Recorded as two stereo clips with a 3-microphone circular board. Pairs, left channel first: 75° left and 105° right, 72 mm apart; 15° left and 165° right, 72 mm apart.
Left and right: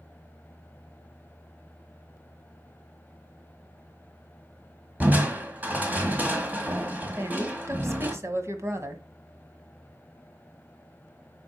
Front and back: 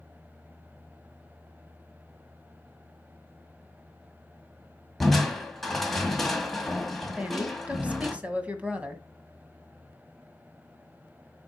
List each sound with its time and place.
5.0 s crushing: 70° right, 1.6 m
7.2 s a woman speaking: 105° right, 1.4 m